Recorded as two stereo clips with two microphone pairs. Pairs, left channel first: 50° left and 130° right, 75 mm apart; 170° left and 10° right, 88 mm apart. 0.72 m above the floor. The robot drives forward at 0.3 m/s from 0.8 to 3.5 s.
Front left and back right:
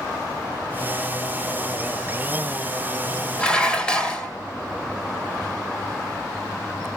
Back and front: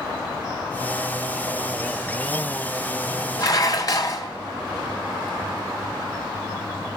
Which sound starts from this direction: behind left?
Dishes clattering, at 3.4 s.